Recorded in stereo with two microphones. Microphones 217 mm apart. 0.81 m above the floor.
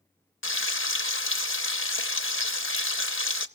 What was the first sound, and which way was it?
Frying, 70° left (ahead or behind).